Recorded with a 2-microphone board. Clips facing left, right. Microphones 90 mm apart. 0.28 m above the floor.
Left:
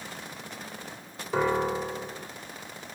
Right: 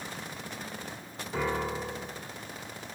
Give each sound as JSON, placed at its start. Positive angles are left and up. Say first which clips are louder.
{"t": 1.3, "sound": "a piano", "louder": "left 6 dB", "side_deg": 85, "distance_m": 4.0}